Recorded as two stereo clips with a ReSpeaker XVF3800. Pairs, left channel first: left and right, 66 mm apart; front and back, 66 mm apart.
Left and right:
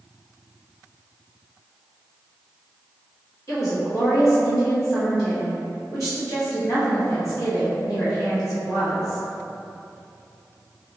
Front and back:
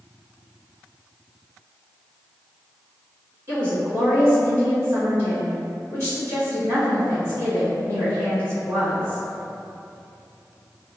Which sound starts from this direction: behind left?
A woman speaking, at 3.5 s.